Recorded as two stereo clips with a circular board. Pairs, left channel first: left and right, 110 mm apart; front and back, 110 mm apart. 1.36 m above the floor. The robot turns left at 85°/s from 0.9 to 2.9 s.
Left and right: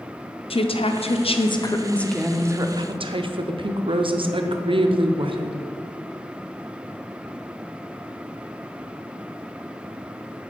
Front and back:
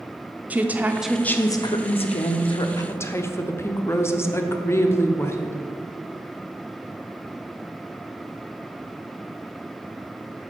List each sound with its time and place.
0.5 s a woman speaking: 105° left, 0.5 m; by 5.6 s 65° right, 0.5 m